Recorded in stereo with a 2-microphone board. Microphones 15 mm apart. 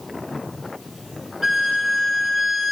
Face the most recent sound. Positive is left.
turn(degrees=-10)  # may be behind; listen again after turning